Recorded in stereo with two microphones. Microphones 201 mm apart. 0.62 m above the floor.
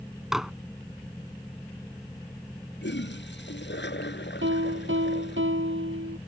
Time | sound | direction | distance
0.3 | dishes clattering | centre (ahead or behind) | ?
2.8 | a toilet flushing | 65° left (ahead or behind) | ?
4.4 | a piano | 85° right | ?